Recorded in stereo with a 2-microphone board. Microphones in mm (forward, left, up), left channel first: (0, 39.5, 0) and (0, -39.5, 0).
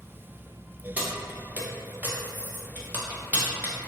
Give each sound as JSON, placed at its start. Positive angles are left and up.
{"t": 1.0, "sound": "keys jangling", "side_deg": -20, "distance_m": 0.6}